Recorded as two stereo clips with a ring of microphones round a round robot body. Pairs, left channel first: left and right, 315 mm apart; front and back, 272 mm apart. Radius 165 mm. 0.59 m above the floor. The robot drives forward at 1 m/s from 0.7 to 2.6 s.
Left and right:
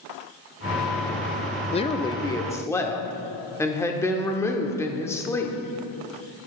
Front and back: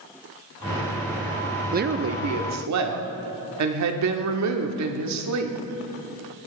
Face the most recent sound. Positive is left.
turn(degrees=170)